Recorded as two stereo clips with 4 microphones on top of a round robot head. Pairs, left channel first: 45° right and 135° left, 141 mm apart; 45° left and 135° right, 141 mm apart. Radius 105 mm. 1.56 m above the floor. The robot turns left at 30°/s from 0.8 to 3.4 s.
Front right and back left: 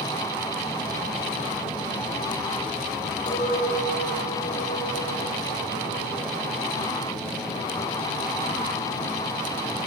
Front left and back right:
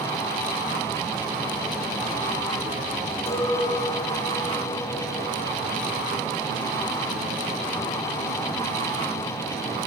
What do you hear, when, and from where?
3.3 s a clink: 5° right, 4.5 m; by 6.3 s 10° right, 4.5 m